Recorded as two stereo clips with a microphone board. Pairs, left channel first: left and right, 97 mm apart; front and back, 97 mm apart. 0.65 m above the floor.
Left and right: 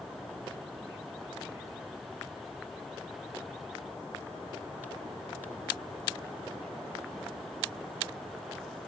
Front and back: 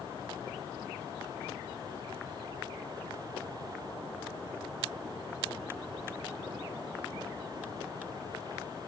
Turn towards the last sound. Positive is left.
No sound to turn to.